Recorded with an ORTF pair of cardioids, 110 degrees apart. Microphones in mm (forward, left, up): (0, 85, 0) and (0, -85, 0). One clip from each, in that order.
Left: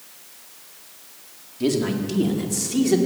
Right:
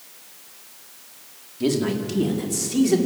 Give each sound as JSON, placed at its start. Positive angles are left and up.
{"t": 1.6, "sound": "a man speaking", "azimuth_deg": 0, "distance_m": 4.5}